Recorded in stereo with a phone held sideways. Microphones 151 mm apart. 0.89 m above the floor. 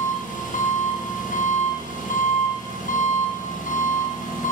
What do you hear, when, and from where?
0.0 s an engine running: 60° left (ahead or behind), 0.7 m